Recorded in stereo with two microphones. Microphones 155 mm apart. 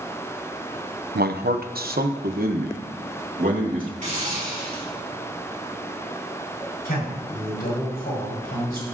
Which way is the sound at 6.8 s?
85° left.